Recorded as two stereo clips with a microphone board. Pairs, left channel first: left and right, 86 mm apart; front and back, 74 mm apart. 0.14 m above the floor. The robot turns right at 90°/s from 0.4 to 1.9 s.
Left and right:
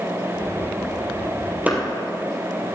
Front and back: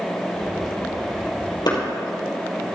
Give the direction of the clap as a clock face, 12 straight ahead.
1 o'clock.